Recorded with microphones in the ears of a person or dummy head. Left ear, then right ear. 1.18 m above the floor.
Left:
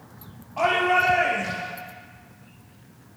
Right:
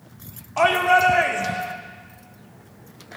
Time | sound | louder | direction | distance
0.6 | a shout | right 4 dB | 50° right (ahead or behind) | 2.5 m